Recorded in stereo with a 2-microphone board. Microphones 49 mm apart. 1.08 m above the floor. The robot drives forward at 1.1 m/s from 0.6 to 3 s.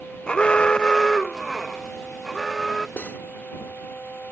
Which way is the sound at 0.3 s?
20° left (ahead or behind).